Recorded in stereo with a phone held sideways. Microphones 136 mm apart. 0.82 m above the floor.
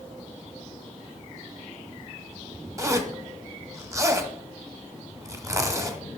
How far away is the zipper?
About 1.1 m.